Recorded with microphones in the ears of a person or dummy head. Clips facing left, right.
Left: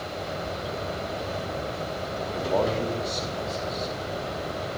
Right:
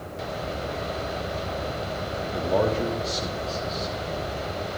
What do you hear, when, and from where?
2.3 s a man speaking: 5° right (ahead or behind), 3 m